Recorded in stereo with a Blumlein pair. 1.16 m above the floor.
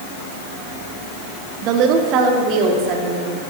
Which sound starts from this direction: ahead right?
A woman speaking, at 1.6 s.